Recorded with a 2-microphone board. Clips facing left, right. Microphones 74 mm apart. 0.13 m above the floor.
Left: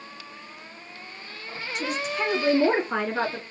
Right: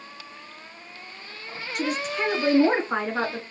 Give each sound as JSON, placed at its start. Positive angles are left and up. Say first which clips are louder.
{"t": 1.8, "sound": "a woman speaking", "louder": "right 2 dB", "side_deg": -50, "distance_m": 2.0}